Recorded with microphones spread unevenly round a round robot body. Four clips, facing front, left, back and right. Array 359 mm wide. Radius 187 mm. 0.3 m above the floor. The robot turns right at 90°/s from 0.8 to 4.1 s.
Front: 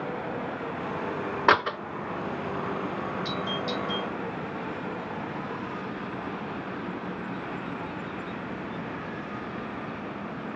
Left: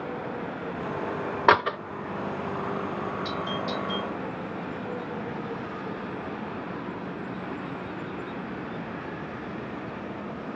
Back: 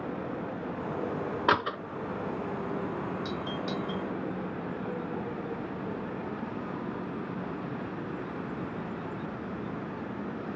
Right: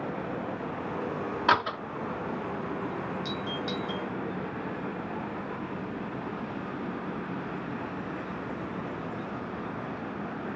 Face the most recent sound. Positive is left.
turn(degrees=-70)